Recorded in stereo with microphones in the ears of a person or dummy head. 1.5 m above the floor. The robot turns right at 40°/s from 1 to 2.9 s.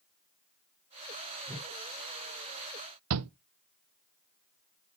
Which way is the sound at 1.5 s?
15° right (ahead or behind).